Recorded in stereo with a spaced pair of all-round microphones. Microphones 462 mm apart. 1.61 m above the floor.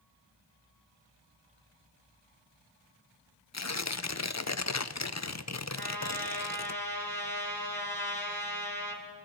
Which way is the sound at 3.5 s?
35° left (ahead or behind).